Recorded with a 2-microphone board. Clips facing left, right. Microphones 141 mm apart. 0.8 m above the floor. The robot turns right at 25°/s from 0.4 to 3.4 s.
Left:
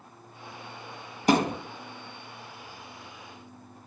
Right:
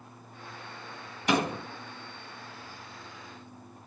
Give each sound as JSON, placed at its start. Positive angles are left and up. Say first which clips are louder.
{"t": 1.3, "sound": "a thud", "louder": "left 4 dB", "side_deg": 40, "distance_m": 1.6}